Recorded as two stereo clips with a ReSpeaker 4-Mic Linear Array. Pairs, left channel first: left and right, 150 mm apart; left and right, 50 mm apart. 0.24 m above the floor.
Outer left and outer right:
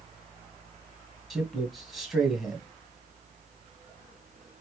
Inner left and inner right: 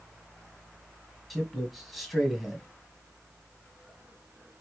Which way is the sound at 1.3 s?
Centre (ahead or behind).